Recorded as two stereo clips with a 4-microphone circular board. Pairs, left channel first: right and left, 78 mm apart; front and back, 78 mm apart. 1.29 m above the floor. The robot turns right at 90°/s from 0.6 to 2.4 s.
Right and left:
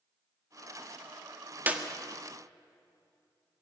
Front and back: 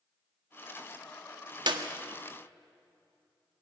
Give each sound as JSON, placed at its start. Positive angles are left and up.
{"t": 1.7, "sound": "a clap", "azimuth_deg": 155, "distance_m": 1.7}